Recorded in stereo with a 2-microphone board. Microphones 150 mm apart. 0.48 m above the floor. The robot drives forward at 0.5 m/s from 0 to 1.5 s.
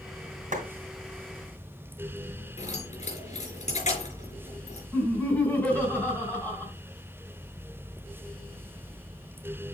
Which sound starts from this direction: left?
Keys jangling, at 2.6 s.